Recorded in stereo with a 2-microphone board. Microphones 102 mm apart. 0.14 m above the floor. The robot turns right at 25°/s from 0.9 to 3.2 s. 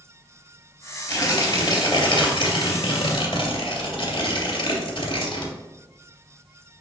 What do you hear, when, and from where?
1.1 s tearing paper: 45° left, 1.8 m; by 5.5 s 100° left, 1.8 m